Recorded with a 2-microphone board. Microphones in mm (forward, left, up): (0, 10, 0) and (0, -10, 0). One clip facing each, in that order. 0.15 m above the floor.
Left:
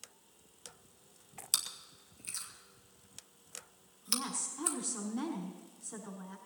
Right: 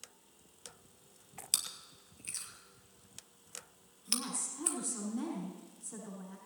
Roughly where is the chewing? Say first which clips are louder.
Left 1 dB; centre.